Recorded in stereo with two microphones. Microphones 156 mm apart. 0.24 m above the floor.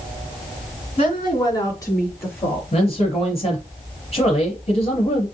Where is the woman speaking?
40° left (ahead or behind), 2.5 m; by 2.6 s 10° left (ahead or behind), 4 m.